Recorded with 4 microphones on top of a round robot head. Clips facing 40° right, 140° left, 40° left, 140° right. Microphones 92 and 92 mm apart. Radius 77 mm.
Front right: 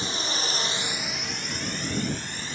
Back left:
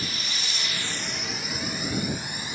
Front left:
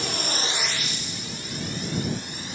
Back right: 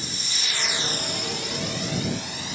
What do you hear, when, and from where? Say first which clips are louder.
0.0 s a drone: front right 4 dB, front left 7 dB; 20° left; by 2.6 s 140° right